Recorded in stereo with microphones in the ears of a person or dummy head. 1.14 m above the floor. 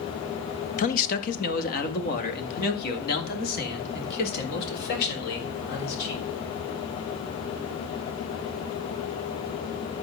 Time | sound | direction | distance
0.8 | a man speaking | 40° left (ahead or behind) | 1.2 m